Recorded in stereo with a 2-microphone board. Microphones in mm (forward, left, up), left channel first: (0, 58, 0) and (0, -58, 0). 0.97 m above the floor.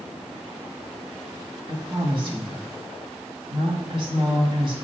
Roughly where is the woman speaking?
Right.